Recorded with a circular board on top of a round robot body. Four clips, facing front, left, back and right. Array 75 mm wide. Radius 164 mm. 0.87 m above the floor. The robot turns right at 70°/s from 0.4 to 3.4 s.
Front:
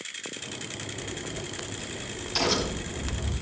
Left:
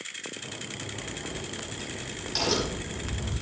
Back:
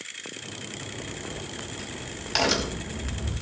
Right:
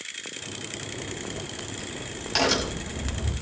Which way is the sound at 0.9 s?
110° left.